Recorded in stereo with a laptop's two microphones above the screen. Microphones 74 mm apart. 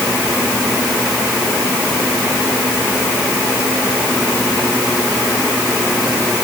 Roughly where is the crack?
No crack in this recording.